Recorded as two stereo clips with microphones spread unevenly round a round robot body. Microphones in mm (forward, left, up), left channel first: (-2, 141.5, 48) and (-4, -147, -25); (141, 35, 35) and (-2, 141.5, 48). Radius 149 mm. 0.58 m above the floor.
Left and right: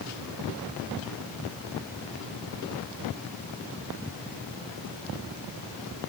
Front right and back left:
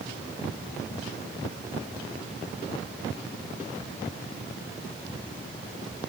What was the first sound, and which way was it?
Only background noise.